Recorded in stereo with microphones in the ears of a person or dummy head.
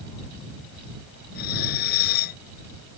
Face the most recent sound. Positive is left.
turn(degrees=55)  # may be behind; listen again after turning